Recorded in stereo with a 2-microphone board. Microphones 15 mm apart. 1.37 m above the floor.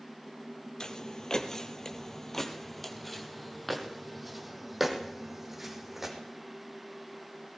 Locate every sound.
0.8 s footsteps: 45° left (ahead or behind), 2.5 m; by 6.2 s 15° right (ahead or behind), 4.5 m